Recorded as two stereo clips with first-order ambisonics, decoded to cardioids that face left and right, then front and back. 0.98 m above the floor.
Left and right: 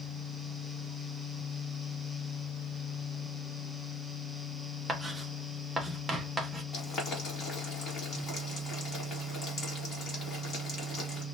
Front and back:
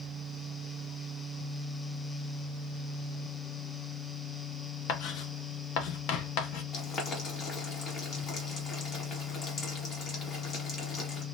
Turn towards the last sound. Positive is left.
turn(degrees=40)